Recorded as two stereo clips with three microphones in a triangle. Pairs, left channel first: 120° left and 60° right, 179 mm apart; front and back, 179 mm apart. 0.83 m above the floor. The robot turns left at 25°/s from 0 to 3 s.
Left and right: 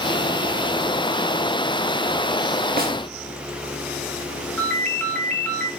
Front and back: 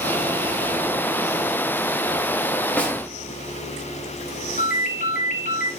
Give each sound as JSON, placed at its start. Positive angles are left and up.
{"t": 2.8, "sound": "a snare drum", "azimuth_deg": -80, "distance_m": 1.3}
{"t": 4.6, "sound": "a ringtone", "azimuth_deg": 40, "distance_m": 5.0}